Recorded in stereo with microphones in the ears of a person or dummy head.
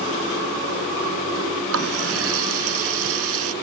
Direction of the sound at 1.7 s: 80° right.